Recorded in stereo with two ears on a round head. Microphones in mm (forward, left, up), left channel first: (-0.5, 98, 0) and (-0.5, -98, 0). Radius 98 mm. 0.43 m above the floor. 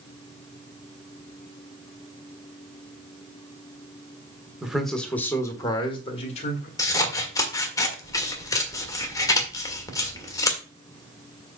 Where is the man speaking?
5° right (ahead or behind), 1.5 m; by 6.7 s 35° left (ahead or behind), 1.8 m.